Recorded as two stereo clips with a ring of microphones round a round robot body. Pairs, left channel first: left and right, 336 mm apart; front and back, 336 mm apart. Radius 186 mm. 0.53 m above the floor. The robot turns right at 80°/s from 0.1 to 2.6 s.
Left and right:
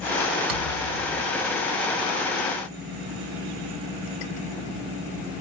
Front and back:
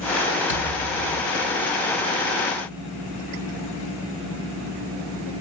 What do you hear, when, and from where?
0.5 s a thud: 110° right, 1.1 m; by 1.7 s 10° right, 1.1 m